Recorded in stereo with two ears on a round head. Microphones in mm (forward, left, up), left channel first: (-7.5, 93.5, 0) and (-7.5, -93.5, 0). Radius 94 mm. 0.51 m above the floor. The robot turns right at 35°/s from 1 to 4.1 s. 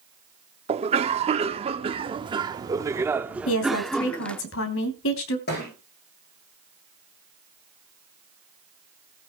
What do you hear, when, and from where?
0.7 s a cough: 30° right (ahead or behind), 0.9 m; by 4.4 s 5° left (ahead or behind), 0.9 m
3.5 s a woman speaking: 75° left (ahead or behind), 3 m; by 5.4 s 70° left (ahead or behind), 3 m
5.5 s a thud: 55° left (ahead or behind), 9 m